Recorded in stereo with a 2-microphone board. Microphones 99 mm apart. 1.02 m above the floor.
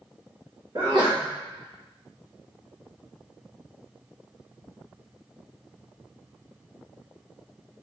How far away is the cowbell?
I don't hear a cowbell.